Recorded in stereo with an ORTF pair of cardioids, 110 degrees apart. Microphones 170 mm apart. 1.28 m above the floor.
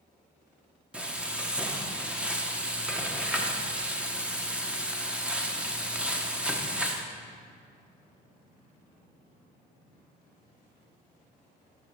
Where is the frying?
5° right, 1.0 m.